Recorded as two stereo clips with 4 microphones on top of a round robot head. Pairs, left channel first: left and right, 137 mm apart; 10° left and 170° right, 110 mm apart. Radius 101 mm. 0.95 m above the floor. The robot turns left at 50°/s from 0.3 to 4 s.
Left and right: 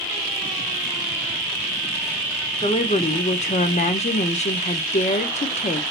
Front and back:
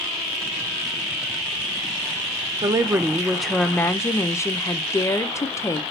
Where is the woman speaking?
140° left, 0.6 m; by 5.8 s 70° left, 0.6 m.